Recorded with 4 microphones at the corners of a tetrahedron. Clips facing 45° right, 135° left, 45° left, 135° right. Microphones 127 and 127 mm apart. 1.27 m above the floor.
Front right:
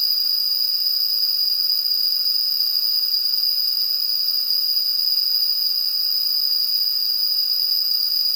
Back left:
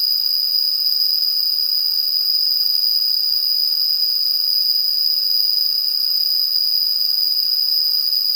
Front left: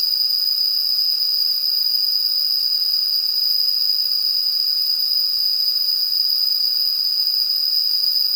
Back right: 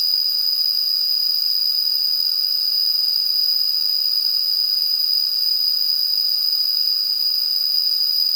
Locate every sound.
0.0 s an insect: 55° right, 1.1 m